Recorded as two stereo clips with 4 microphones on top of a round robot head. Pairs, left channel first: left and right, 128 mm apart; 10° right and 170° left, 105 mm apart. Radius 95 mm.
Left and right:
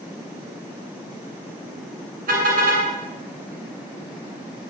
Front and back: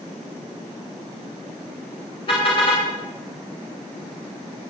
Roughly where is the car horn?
Ahead right.